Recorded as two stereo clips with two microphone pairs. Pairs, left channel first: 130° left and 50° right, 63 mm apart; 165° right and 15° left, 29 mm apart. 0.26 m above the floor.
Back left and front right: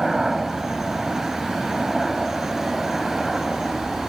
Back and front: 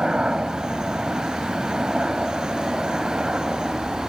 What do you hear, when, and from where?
0.0 s a helicopter: 30° left; by 4.1 s 35° left